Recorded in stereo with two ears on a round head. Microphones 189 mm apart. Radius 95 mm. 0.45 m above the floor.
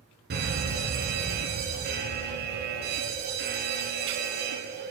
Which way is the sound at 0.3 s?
50° right (ahead or behind).